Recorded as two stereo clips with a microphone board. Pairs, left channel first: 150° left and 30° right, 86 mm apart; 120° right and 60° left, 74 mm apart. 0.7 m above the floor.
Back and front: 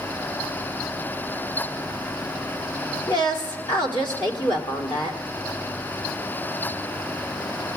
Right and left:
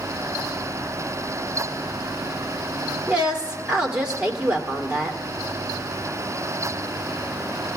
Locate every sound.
3.1 s a woman speaking: 135° left, 1.9 m